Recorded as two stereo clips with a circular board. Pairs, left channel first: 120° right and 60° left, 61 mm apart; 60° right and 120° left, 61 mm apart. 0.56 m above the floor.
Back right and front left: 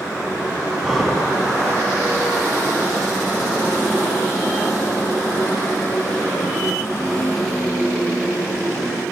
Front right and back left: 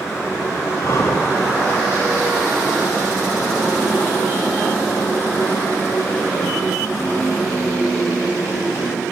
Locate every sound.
0.8 s breathing: 30° right, 3 m